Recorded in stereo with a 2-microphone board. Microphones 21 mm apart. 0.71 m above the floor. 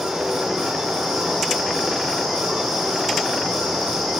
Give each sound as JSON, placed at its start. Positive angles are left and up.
{"t": 0.0, "sound": "running water", "side_deg": -55, "distance_m": 4.5}